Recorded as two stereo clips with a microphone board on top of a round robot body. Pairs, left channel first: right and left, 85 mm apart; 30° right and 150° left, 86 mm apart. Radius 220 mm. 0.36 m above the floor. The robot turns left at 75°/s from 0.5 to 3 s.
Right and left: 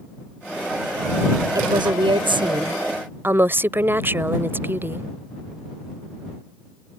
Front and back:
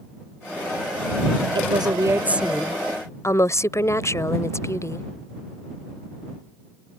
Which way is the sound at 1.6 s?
135° left.